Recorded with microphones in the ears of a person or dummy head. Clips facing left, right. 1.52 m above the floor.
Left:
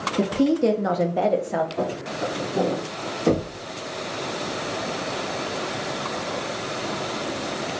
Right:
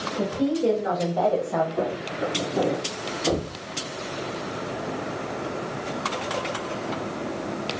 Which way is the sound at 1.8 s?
45° right (ahead or behind).